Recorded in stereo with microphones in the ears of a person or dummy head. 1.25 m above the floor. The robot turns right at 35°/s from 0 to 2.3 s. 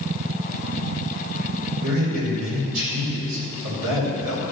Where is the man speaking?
70° right (ahead or behind), 4 m; by 4.4 s 85° right, 4 m.